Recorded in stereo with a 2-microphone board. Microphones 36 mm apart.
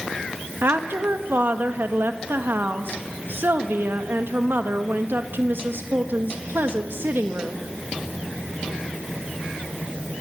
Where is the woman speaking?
75° right (ahead or behind), 1.6 m.